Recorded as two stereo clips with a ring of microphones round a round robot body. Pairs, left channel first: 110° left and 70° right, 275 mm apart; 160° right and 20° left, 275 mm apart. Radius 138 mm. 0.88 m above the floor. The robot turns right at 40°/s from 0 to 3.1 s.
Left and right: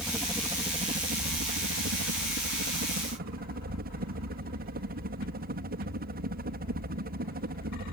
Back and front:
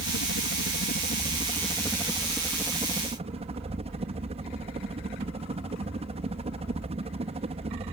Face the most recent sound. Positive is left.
turn(degrees=-35)